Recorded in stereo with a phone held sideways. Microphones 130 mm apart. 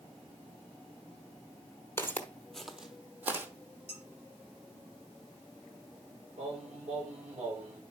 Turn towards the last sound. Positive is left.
turn(degrees=-80)